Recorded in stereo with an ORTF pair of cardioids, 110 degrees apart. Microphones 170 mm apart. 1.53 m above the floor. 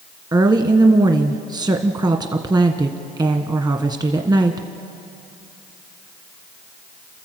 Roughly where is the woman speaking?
Ahead right.